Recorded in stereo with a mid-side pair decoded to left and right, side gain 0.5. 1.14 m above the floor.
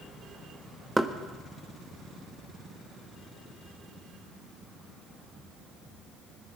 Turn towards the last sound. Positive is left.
turn(degrees=-10)